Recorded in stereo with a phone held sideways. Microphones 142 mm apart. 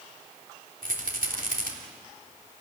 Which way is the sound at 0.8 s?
80° right.